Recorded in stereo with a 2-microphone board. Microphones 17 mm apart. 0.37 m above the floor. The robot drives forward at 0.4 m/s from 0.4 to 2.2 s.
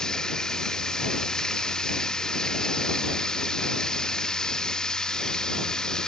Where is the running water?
40° left (ahead or behind).